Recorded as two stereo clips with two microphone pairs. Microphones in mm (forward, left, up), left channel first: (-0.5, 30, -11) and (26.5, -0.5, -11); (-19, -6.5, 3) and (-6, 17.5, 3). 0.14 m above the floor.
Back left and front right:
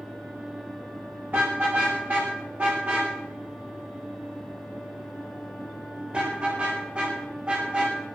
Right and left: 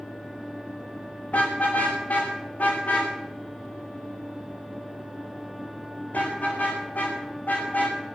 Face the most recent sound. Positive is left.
turn(degrees=-110)